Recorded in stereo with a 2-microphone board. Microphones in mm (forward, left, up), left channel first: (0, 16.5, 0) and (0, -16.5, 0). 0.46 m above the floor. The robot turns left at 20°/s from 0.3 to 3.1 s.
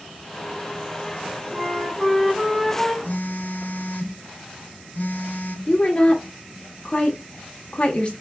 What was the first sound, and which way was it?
A flute, 20° right (ahead or behind).